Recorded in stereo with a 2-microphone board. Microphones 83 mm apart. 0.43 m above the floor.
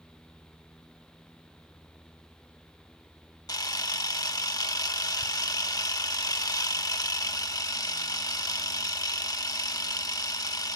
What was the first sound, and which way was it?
A camera shutter, 45° left (ahead or behind).